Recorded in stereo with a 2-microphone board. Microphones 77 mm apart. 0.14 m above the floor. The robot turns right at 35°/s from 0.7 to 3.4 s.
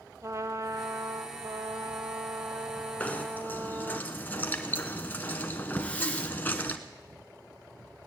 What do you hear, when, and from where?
0.2 s a trumpet: 135° right, 1.0 m; by 4.0 s 40° right, 1.0 m
3.0 s knocking: 20° left (ahead or behind), 1.0 m; by 6.8 s 25° left (ahead or behind), 1.0 m
5.8 s a hiss: 20° left (ahead or behind), 1.2 m